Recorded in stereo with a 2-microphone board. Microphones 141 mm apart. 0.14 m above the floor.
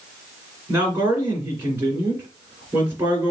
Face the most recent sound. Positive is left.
turn(degrees=-20)  # may be behind; listen again after turning